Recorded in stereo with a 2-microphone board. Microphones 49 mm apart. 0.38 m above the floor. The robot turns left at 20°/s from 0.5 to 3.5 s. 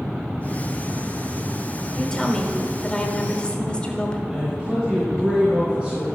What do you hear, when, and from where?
2.0 s a woman speaking: 15° left (ahead or behind), 1.2 m; by 4.2 s 20° left (ahead or behind), 1.2 m
4.3 s a man speaking: 15° right (ahead or behind), 3.5 m